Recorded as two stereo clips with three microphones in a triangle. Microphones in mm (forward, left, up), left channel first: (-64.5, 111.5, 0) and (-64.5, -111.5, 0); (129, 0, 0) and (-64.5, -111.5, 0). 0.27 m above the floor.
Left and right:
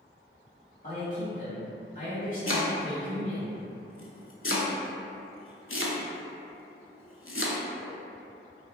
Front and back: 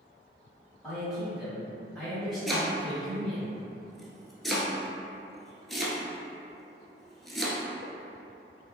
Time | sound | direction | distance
0.8 | a man speaking | 120° left | 1.8 m
2.5 | chopping | 120° left | 0.5 m